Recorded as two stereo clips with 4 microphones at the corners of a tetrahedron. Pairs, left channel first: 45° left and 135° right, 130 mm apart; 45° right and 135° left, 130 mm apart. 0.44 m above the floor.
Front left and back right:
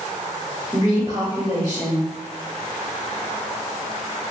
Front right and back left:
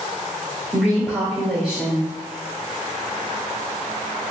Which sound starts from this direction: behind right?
A woman speaking, at 0.7 s.